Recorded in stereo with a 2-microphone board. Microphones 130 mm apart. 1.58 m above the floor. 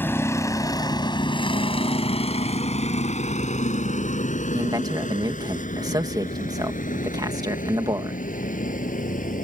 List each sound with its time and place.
0.0 s a vehicle: 15° left (ahead or behind); by 9.4 s 85° left
4.5 s a man speaking: 30° right (ahead or behind)